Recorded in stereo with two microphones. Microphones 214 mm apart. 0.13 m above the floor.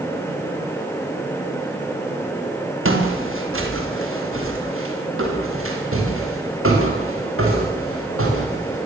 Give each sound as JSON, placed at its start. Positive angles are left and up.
{"t": 2.9, "sound": "footsteps", "side_deg": -75, "distance_m": 6.0}